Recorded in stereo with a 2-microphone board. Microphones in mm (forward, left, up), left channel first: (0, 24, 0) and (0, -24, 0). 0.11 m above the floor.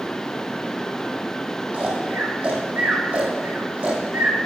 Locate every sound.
1.7 s snoring: 25° right (ahead or behind), 1.5 m